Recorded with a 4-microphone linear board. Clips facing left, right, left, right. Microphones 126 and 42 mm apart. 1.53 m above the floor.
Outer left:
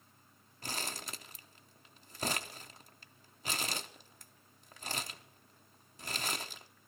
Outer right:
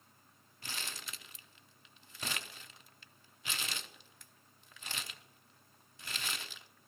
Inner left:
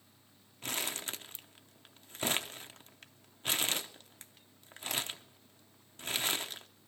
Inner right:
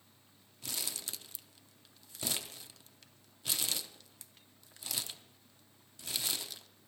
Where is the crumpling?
40° left (ahead or behind), 0.6 m.